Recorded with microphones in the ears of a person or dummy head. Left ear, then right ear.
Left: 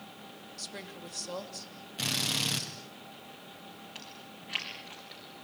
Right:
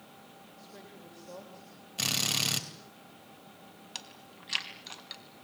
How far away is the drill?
About 3.5 m.